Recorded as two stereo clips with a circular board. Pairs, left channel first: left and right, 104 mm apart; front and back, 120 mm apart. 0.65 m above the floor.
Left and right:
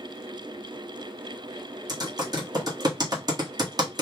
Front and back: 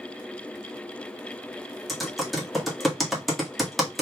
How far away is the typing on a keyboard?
About 1.4 m.